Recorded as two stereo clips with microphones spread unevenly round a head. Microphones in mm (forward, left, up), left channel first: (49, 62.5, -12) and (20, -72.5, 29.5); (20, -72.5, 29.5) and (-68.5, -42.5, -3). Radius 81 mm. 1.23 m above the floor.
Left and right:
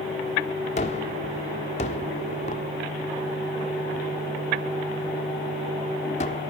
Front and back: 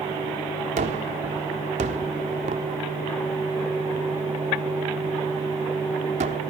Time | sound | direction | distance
0.8 | a gunshot | 135° left | 1.1 m